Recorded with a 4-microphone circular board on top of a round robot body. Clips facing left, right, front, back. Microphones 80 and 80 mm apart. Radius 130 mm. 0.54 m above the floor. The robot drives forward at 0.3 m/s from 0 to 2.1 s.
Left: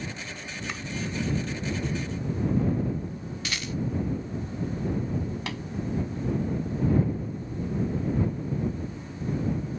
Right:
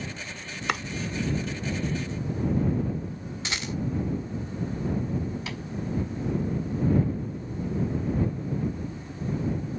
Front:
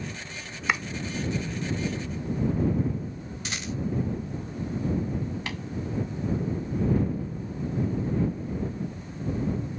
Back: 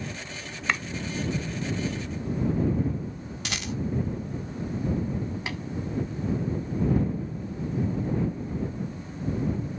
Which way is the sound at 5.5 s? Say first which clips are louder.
Left 2 dB, back 1 dB; 110° left.